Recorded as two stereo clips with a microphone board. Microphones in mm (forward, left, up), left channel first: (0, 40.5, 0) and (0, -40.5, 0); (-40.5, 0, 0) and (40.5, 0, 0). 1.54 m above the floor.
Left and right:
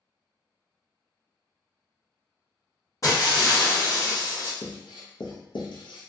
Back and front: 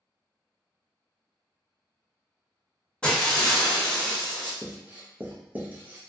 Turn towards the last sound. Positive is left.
turn(degrees=70)